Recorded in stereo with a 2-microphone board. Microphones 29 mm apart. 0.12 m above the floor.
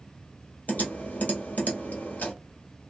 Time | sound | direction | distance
0.7 | typing on a keyboard | 60° left (ahead or behind) | 1.3 m